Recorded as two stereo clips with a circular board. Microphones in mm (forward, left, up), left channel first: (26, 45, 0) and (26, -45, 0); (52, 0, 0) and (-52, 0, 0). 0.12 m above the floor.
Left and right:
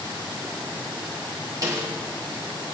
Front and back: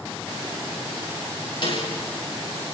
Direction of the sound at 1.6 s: 35° right.